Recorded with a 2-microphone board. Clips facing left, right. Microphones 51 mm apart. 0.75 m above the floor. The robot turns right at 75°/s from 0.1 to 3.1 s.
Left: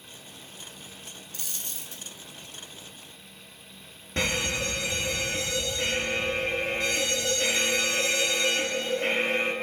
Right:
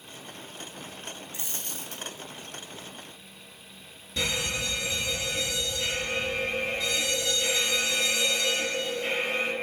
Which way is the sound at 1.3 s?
155° right.